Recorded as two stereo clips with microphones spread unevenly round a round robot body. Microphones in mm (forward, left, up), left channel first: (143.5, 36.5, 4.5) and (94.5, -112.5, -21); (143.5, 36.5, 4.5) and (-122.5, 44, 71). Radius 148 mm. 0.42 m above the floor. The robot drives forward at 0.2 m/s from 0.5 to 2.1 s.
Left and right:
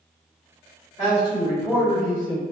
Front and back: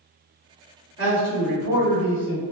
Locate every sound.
1.0 s a man speaking: 165° left, 1.7 m